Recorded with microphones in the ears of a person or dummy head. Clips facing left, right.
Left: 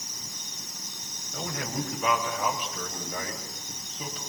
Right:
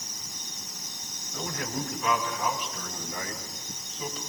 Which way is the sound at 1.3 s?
60° left (ahead or behind).